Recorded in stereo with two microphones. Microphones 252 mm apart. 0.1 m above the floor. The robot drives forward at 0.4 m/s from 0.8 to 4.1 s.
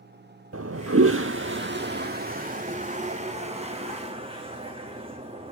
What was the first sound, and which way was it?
A toilet flushing, 65° right (ahead or behind).